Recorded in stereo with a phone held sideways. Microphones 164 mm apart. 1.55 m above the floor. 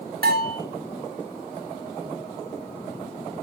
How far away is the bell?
About 2.5 m.